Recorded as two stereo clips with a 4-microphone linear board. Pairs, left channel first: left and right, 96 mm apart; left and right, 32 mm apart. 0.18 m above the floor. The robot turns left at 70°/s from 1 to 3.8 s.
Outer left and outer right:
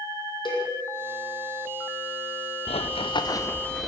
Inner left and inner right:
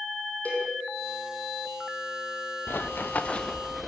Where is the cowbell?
50° left (ahead or behind), 6.5 m.